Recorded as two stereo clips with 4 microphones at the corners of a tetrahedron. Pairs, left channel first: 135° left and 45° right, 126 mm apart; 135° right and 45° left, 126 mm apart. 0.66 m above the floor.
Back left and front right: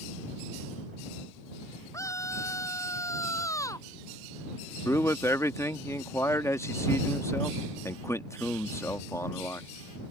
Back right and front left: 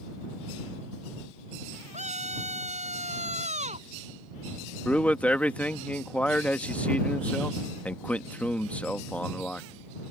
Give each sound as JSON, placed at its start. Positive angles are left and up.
{"t": 1.9, "sound": "a scream", "azimuth_deg": 70}
{"t": 4.8, "sound": "a man speaking", "azimuth_deg": 155}